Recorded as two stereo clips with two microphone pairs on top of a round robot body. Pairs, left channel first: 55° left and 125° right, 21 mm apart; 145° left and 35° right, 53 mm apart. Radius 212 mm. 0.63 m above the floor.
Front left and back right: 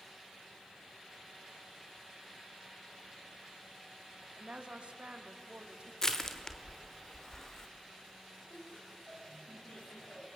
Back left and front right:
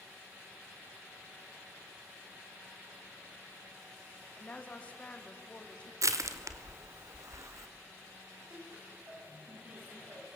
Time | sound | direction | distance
4.4 | a woman speaking | 150° right | 2.5 m
6.0 | crushing | 15° right | 1.3 m
8.5 | laughter | 20° left | 7 m